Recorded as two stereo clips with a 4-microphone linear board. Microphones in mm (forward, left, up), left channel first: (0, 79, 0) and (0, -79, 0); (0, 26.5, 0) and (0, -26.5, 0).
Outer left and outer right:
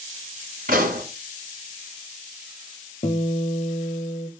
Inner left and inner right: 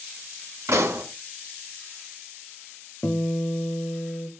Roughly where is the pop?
Right.